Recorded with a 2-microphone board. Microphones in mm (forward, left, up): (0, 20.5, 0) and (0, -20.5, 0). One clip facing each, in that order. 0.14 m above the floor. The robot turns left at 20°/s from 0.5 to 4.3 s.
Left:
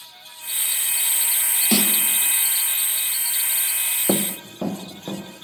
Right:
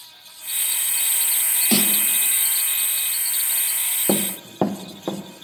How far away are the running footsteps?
About 0.6 m.